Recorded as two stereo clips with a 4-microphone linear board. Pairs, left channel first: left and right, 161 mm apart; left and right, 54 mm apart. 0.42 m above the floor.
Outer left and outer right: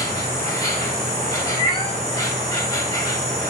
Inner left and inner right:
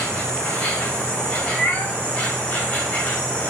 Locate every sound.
0.0 s an insect: 20° left (ahead or behind), 2 m
1.5 s a cat meowing: 30° left (ahead or behind), 1.3 m